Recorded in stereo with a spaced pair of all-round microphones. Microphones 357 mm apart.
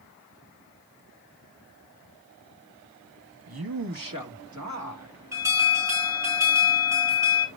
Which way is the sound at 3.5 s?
85° right.